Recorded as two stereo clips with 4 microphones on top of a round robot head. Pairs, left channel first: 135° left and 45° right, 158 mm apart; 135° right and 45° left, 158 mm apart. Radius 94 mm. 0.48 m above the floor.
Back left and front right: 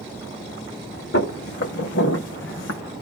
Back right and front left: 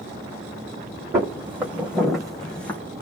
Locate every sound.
1.1 s footsteps: 120° left, 1.9 m; by 2.8 s 145° left, 1.3 m